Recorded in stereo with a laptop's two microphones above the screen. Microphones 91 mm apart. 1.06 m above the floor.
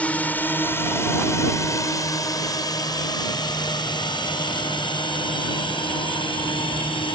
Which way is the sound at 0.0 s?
15° left (ahead or behind).